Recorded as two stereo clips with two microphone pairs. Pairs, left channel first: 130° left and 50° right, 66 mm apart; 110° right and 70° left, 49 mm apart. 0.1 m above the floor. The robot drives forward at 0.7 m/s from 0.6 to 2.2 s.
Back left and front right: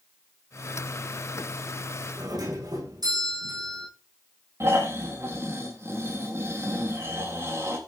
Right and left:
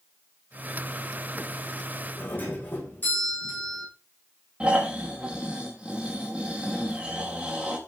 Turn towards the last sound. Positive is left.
turn(degrees=0)